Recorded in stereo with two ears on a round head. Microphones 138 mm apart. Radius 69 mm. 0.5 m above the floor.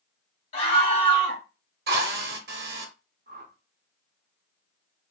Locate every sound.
0.5 s a scream: 45° left (ahead or behind), 1.6 m
1.9 s a drill: 70° right (ahead or behind), 0.9 m
3.3 s a whoosh: 60° right (ahead or behind), 0.6 m